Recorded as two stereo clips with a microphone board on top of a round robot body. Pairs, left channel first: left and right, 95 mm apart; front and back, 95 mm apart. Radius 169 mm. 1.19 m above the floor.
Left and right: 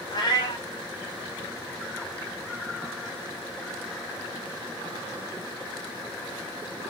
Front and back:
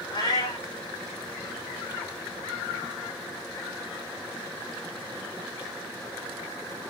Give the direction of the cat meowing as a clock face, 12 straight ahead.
10 o'clock.